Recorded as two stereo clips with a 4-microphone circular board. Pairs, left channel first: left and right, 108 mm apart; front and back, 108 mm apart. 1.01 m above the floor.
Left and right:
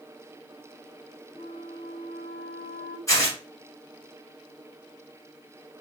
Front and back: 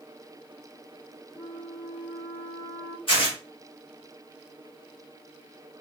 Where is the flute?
75° left, 1.2 m.